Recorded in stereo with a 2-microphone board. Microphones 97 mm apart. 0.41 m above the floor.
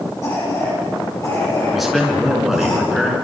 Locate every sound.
0.2 s a cough: 35° left (ahead or behind), 9 m
1.7 s a man speaking: centre (ahead or behind), 6.5 m